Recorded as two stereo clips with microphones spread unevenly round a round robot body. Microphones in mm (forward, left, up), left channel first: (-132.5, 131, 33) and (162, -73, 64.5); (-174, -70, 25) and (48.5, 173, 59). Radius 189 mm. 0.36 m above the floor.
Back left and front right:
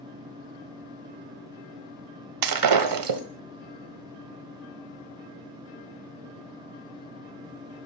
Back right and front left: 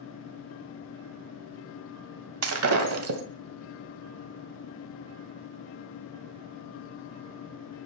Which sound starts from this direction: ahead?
Breaking glass, at 2.4 s.